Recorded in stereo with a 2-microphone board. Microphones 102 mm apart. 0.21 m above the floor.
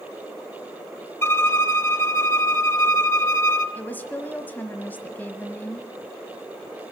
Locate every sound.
1.2 s a violin: 25° left (ahead or behind), 1.0 m
3.8 s a woman speaking: 20° left (ahead or behind), 1.1 m